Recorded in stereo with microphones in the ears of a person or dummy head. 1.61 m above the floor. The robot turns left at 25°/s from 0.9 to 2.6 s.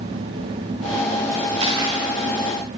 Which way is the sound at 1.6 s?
30° right (ahead or behind).